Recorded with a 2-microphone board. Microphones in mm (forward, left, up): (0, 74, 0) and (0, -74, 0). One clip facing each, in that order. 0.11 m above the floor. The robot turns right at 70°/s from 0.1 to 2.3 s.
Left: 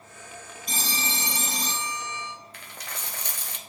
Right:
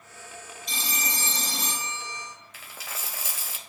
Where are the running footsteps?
I don't hear running footsteps.